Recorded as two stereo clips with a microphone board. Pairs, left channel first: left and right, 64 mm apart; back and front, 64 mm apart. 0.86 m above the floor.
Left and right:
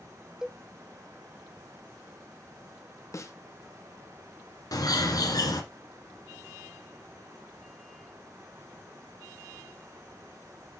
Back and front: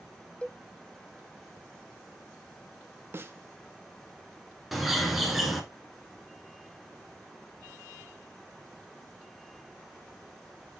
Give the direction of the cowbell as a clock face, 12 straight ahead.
5 o'clock.